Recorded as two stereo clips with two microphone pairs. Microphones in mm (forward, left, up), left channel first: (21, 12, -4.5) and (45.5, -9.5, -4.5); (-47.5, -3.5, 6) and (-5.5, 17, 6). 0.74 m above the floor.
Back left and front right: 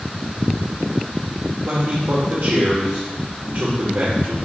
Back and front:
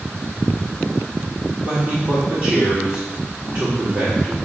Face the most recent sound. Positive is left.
turn(degrees=-25)